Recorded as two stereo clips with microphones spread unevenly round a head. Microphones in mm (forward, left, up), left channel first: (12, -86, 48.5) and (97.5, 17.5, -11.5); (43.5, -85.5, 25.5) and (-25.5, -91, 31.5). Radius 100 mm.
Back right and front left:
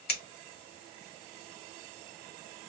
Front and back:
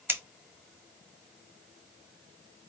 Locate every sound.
0.1 s scissors: 115° right, 1.5 m